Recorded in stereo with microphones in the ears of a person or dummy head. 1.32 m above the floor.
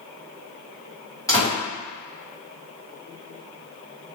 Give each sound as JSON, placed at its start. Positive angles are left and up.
{"t": 1.3, "sound": "a door slam", "side_deg": 20, "distance_m": 1.3}